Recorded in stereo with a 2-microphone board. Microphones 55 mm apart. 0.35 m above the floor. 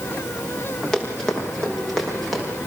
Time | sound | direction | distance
0.9 | running footsteps | 10° left (ahead or behind) | 8.5 m